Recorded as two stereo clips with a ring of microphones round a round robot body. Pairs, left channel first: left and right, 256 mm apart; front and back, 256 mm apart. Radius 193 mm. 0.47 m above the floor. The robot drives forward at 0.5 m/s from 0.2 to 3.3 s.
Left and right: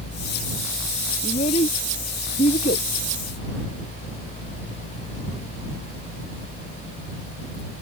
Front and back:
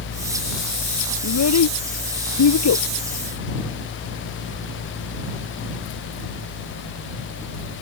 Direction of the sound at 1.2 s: 15° left.